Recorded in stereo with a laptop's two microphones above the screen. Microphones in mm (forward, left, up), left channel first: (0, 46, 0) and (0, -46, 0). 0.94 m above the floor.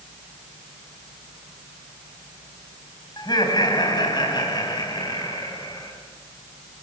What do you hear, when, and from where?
3.2 s laughter: 50° left (ahead or behind), 5.5 m